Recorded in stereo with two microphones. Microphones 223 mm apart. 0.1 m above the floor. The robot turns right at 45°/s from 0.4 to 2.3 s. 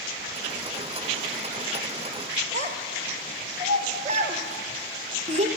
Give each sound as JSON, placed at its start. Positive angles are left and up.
{"t": 2.5, "sound": "a child speaking", "side_deg": -30, "distance_m": 1.1}